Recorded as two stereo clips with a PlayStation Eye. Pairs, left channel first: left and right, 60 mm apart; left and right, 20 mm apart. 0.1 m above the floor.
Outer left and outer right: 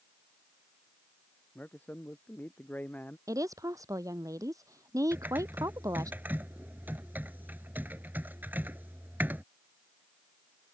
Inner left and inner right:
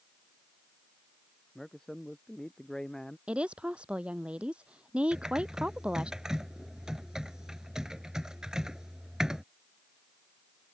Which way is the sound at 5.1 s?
35° right (ahead or behind).